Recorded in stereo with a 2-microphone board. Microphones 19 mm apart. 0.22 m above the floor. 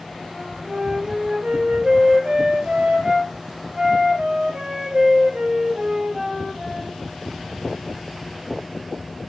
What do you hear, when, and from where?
0.3 s a flute: 45° right (ahead or behind), 2.5 m